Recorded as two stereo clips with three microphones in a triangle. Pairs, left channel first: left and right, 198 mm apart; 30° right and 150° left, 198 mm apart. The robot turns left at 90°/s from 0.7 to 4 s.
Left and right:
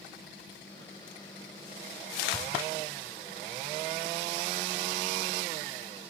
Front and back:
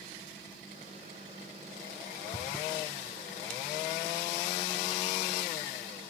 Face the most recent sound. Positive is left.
turn(degrees=175)